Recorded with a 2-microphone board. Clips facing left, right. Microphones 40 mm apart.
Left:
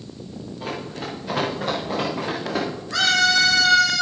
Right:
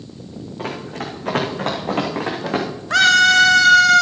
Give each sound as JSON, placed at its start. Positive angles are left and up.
{"t": 0.6, "sound": "running footsteps", "side_deg": -70, "distance_m": 4.5}
{"t": 2.9, "sound": "a scream", "side_deg": -70, "distance_m": 2.0}